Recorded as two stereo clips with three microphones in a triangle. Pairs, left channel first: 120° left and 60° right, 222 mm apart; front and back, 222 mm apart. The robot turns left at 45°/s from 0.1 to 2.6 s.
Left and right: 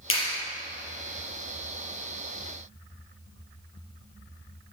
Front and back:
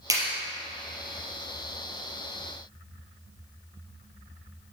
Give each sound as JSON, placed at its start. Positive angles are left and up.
{"t": 0.1, "sound": "a clap", "azimuth_deg": 105, "distance_m": 3.5}